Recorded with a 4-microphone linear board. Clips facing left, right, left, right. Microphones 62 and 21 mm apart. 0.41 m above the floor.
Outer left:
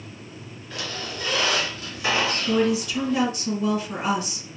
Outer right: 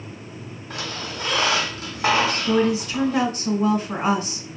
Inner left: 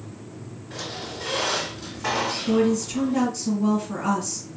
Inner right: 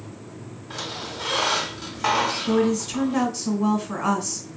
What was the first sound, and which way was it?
A squeak, 70° right (ahead or behind).